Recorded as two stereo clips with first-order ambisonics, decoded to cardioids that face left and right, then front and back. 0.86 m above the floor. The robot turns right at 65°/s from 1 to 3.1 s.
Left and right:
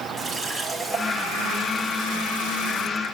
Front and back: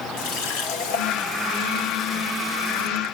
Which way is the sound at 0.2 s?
5° left.